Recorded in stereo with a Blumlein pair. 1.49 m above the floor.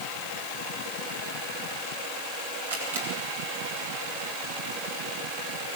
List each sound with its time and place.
2.7 s a camera shutter: 70° right, 7.5 m